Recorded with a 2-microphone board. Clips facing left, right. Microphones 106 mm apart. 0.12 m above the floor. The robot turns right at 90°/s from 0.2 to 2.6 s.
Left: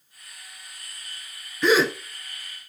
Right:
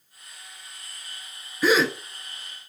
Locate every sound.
1.6 s a gasp: 5° right (ahead or behind), 0.9 m; by 1.9 s 10° left (ahead or behind), 0.9 m